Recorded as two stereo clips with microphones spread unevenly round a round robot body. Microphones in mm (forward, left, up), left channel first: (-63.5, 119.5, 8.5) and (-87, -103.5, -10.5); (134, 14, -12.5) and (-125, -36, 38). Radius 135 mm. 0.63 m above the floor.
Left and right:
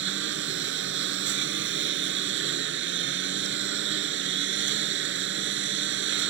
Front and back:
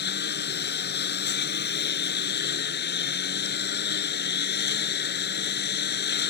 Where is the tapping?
I don't hear tapping.